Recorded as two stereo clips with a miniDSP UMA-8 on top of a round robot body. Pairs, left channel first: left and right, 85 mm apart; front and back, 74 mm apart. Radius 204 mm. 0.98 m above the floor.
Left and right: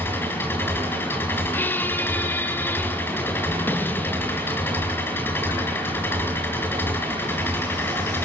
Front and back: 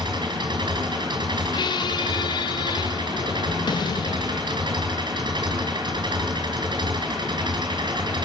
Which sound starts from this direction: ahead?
A squeak, at 1.5 s.